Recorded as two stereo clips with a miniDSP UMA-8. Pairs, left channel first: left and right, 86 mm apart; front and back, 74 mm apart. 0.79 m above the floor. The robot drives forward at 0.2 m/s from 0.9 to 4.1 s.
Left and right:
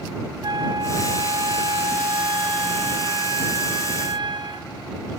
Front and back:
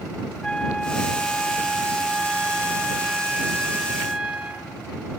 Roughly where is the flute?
Right.